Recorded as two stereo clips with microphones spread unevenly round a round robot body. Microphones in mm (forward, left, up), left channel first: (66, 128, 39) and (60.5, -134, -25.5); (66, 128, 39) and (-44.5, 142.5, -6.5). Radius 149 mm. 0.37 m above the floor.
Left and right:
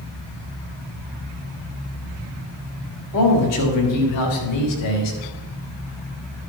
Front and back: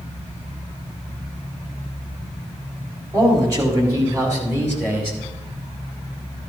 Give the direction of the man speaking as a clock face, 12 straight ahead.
8 o'clock.